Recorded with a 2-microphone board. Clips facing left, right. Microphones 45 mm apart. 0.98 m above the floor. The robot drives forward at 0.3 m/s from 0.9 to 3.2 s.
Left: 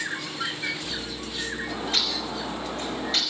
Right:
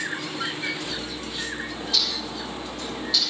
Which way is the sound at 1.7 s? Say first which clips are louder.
Left 1 dB; 40° left (ahead or behind).